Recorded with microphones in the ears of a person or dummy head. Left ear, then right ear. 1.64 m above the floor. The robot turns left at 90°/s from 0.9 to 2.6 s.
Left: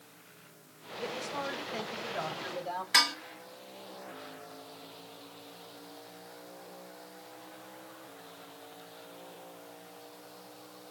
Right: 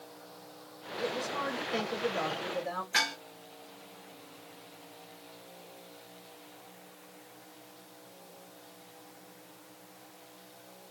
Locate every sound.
1.0 s a woman speaking: 5° left, 1.9 m; by 2.8 s 140° right, 1.9 m
2.9 s dishes clattering: 30° left (ahead or behind), 1.2 m